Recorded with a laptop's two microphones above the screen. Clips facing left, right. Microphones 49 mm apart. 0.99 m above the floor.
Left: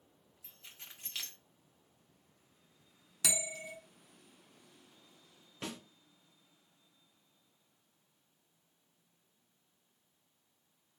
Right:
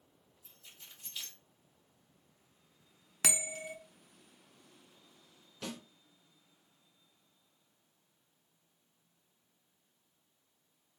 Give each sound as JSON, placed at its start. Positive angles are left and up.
{"t": 0.4, "sound": "keys jangling", "side_deg": 65, "distance_m": 0.7}
{"t": 3.2, "sound": "a bell", "side_deg": -45, "distance_m": 0.7}
{"t": 5.6, "sound": "a snare drum", "side_deg": 30, "distance_m": 1.7}